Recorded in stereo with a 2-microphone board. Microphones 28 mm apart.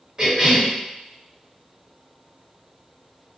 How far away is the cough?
About 1.5 m.